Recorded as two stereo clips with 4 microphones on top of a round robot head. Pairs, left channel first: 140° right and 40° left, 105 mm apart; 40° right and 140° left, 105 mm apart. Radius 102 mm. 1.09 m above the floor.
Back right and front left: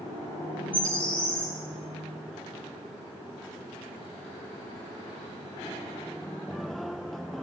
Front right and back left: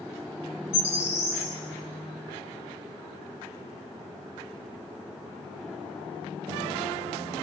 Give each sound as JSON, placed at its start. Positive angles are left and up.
{"t": 0.7, "sound": "a bird", "azimuth_deg": -60, "distance_m": 1.2}